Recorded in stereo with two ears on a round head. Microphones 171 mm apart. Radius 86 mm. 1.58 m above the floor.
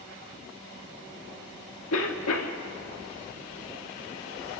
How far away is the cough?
About 2.5 m.